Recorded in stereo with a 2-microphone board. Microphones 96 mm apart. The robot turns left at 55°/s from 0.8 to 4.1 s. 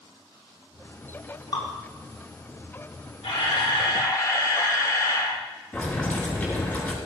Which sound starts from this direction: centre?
Boiling, at 5.7 s.